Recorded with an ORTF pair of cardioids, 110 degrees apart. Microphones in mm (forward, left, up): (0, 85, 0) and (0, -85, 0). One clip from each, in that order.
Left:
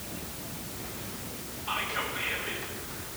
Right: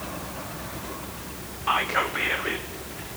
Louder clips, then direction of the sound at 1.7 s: Right 8 dB; 65° right.